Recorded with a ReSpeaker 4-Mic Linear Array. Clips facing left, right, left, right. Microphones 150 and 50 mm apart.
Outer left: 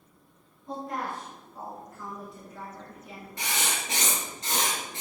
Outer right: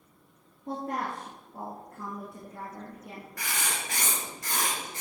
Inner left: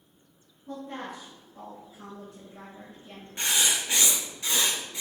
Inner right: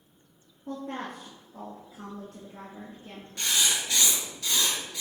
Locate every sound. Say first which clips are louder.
0.7 s a woman speaking: outer right 1 dB, inner right 2 dB; 65° right (ahead or behind), 3.5 m
3.4 s writing: outer left 3 dB, inner left 1 dB; 25° left (ahead or behind), 2.5 m